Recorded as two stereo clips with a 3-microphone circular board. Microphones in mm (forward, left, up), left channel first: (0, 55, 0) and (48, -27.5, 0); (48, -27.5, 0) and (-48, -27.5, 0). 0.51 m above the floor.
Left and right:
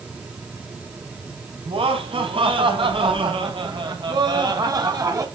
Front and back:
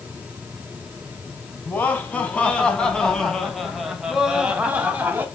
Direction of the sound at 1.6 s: 70° right.